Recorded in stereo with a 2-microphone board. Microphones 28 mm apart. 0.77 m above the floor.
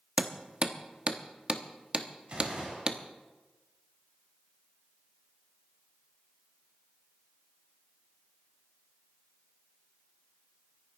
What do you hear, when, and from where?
0.2 s hammering: 30° right (ahead or behind), 0.9 m
2.3 s a gunshot: 35° right (ahead or behind), 6 m